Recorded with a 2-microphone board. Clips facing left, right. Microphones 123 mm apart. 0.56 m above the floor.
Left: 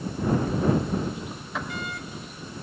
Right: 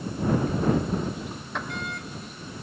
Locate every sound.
0.5 s a sliding door: centre (ahead or behind)